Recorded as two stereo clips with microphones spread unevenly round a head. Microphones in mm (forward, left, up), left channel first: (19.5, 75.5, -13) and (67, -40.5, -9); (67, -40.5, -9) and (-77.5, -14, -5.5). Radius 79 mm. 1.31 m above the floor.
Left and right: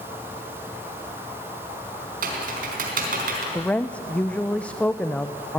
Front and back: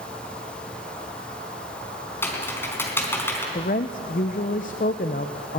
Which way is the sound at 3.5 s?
30° left.